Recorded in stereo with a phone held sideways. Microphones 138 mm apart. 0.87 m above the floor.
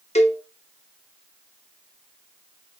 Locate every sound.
0.1 s a cowbell: 50° left (ahead or behind), 0.6 m